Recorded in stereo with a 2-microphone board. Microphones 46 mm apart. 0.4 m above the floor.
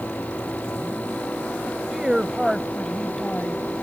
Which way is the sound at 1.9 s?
20° right (ahead or behind).